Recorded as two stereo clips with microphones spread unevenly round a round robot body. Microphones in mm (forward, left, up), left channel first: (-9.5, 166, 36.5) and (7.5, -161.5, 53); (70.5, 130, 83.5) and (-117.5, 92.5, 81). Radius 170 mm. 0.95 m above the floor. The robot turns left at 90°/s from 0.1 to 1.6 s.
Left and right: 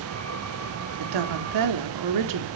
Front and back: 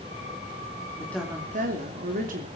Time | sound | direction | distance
1.0 | a woman speaking | 60° right | 3 m